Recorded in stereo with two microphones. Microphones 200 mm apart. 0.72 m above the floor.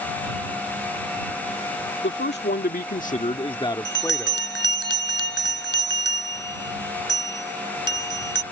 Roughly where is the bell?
Left.